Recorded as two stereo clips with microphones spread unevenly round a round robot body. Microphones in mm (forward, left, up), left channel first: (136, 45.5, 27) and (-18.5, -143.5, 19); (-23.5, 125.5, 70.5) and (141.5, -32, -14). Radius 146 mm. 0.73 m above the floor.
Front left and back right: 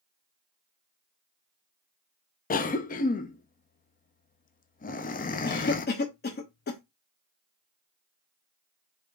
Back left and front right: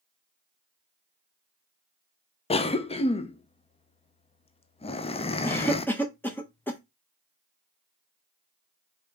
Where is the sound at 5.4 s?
30° left, 0.7 m.